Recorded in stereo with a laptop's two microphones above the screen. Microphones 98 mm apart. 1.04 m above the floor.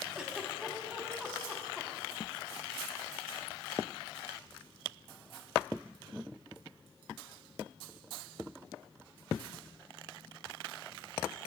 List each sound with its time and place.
0.1 s a giggle: 10° right (ahead or behind), 0.9 m